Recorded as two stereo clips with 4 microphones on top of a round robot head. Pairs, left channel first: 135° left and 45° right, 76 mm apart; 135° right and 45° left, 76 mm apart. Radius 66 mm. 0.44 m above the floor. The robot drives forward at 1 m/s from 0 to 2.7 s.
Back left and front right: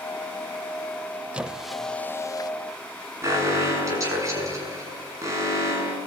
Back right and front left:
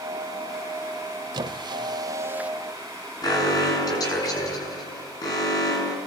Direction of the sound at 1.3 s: 30° left.